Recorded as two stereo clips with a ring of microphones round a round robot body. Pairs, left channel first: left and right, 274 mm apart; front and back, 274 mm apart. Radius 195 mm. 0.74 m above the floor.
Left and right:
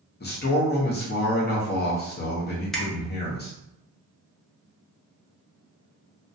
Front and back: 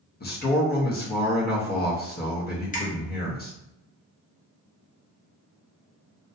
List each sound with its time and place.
0.2 s a man speaking: 45° left, 0.7 m
2.7 s a finger snap: straight ahead, 0.6 m